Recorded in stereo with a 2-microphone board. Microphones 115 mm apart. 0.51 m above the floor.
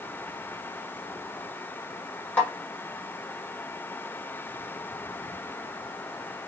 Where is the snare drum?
10° left (ahead or behind), 1.2 m.